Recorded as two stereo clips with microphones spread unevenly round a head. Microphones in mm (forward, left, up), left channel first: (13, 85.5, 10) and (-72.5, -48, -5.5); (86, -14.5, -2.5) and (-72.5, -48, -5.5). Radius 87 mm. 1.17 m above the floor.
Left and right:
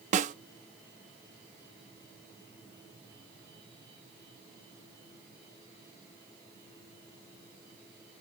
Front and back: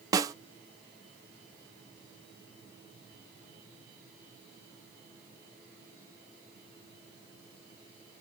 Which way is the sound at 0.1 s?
105° right.